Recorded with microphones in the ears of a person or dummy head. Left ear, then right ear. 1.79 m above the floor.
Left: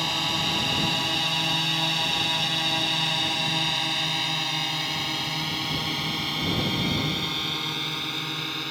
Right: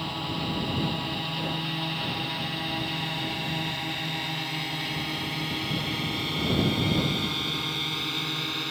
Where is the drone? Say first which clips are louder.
Left 7 dB; 65° left (ahead or behind); by 8.7 s 5° left (ahead or behind).